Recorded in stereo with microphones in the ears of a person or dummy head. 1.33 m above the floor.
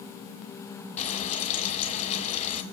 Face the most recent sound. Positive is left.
turn(degrees=45)  # may be behind; listen again after turning